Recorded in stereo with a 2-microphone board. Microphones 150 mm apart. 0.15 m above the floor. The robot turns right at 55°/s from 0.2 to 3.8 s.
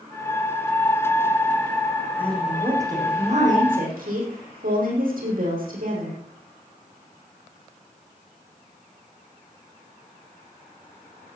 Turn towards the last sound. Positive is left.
turn(degrees=-105)